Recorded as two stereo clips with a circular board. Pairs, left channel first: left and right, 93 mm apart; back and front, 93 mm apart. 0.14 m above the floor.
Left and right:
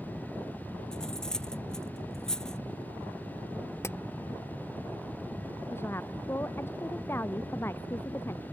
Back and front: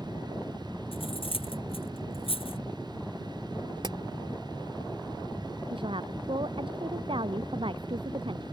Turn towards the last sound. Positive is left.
turn(degrees=25)